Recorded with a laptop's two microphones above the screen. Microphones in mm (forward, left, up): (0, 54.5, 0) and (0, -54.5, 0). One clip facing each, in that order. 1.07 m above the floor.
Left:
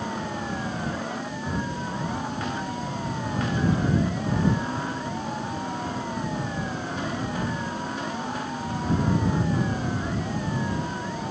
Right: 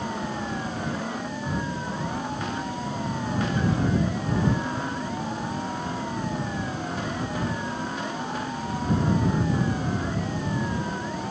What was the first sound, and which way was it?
Only background noise.